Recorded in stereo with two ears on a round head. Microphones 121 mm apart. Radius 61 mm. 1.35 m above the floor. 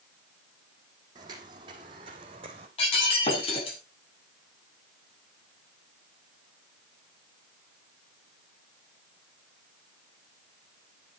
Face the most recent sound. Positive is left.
turn(degrees=45)  # may be behind; listen again after turning